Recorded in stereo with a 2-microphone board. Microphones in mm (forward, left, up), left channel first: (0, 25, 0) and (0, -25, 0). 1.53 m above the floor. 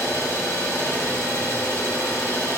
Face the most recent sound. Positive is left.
turn(degrees=70)  # may be behind; listen again after turning